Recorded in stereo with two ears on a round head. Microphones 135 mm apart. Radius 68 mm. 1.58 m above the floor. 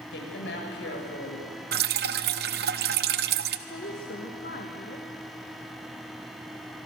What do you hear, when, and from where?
0.1 s a woman speaking: 80° left, 7 m
1.7 s dripping: 65° right (ahead or behind), 0.9 m
3.7 s a woman speaking: 60° left (ahead or behind), 2 m